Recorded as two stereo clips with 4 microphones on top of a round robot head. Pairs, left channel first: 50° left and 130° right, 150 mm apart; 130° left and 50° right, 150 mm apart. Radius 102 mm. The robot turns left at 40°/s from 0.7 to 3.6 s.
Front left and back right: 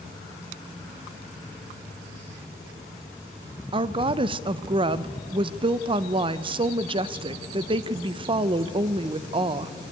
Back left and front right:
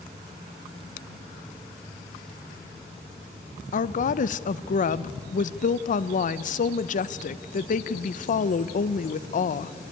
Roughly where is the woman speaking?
Behind.